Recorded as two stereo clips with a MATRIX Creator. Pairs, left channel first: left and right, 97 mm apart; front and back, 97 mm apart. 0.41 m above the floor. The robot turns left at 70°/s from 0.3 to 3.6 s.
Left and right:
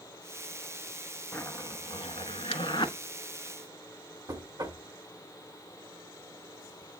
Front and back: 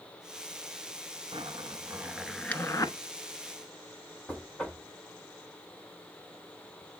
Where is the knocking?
75° right, 1.2 m.